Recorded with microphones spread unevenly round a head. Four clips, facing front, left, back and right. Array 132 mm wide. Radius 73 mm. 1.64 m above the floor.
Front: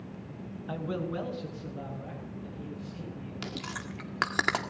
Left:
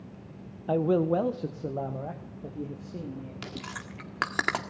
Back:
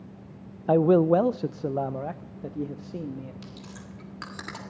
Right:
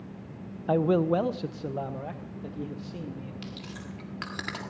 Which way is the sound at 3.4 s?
45° left.